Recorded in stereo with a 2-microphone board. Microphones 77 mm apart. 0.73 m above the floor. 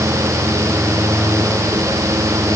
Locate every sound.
Only background noise.